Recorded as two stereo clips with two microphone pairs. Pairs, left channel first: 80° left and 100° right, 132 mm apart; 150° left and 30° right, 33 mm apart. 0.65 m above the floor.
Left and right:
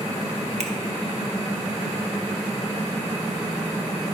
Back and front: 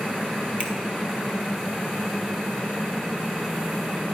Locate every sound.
0.6 s a finger snap: 75° right, 1.0 m